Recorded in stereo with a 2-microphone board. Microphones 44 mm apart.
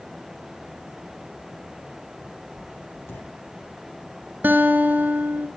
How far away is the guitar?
About 1.2 m.